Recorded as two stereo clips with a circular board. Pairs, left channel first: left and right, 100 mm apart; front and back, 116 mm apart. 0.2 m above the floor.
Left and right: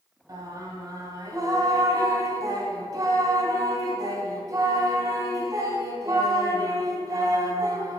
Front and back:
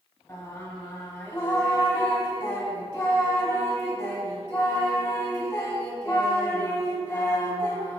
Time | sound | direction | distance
0.3 | singing | 60° right | 1.2 m